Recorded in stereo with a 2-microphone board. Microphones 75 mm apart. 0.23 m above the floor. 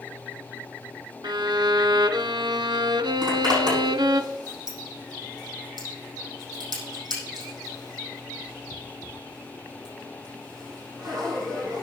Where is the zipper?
65° right (ahead or behind), 8.5 m.